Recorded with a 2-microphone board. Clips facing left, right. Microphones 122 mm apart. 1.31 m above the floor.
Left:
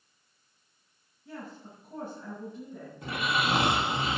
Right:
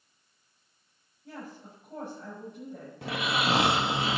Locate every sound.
1.2 s a woman speaking: 85° right, 7 m
3.0 s snoring: 75° right (ahead or behind), 1.8 m